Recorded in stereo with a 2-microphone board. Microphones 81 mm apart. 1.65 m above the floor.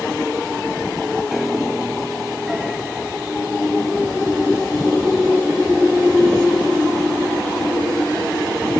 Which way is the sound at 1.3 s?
5° right (ahead or behind).